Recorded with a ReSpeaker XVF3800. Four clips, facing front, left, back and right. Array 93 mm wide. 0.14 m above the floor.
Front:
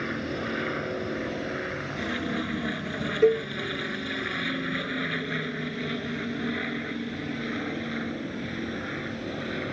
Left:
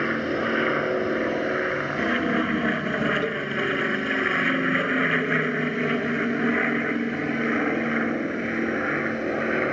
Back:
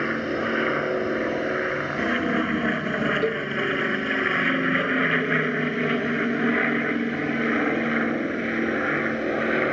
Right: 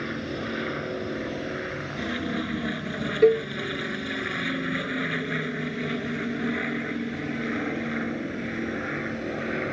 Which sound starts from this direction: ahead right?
A cowbell, at 3.2 s.